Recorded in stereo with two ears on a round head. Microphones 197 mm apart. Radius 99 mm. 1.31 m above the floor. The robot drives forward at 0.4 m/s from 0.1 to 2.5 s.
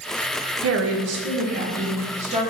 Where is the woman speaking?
65° right (ahead or behind), 0.6 m; by 2.4 s 30° right (ahead or behind), 1.1 m.